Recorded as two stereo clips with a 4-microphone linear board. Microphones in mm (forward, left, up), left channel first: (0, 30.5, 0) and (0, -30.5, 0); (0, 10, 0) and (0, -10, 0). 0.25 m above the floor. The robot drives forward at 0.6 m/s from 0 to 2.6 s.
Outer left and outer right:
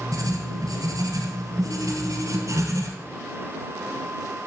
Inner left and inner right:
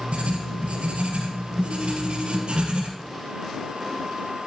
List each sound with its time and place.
0.1 s writing: 70° right (ahead or behind), 1.8 m; by 2.9 s 60° right (ahead or behind), 2.0 m